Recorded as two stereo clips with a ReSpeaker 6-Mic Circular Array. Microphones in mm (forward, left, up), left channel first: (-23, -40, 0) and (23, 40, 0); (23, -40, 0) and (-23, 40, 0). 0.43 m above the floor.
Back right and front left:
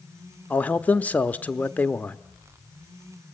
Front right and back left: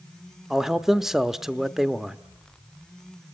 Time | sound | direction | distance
0.5 | a man speaking | 160° right | 0.8 m